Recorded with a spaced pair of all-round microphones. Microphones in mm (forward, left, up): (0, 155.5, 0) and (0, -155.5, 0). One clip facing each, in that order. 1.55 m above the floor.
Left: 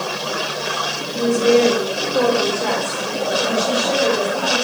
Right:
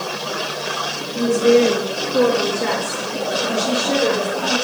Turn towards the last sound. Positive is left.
turn(degrees=-40)  # may be behind; listen again after turning